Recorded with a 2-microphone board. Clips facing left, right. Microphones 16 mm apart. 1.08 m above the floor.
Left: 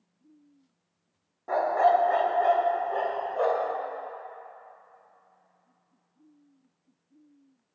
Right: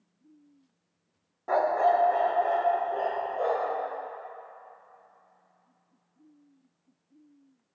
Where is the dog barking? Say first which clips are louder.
Left 1 dB; 20° right (ahead or behind), 0.5 m; by 3.8 s 80° left, 2 m.